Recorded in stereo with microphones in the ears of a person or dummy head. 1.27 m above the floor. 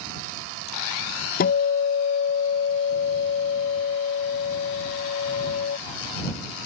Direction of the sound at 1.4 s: 50° left (ahead or behind).